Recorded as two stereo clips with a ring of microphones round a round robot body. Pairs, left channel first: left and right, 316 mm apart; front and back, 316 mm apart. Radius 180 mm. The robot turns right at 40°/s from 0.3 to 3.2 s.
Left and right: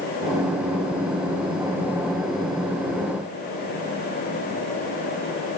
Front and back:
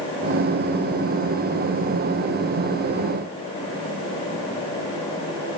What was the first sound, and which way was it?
Only background noise.